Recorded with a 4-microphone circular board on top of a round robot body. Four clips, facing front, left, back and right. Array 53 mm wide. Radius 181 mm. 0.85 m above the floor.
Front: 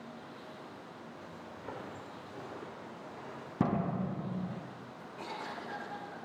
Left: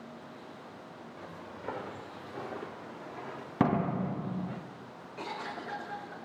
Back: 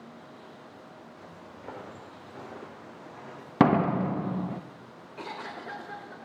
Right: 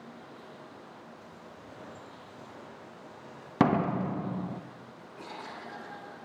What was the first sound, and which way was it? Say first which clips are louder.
Footsteps: left 4 dB, back 1 dB; 105° left.